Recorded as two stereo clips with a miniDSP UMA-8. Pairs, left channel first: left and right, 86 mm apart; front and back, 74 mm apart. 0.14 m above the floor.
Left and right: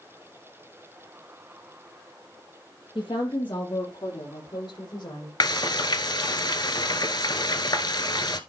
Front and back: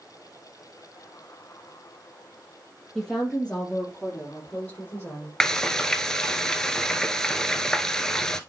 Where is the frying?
80° left, 0.8 m.